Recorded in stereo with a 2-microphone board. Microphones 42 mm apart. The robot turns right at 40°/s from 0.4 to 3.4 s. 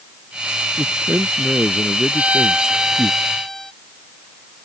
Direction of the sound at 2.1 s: 45° right.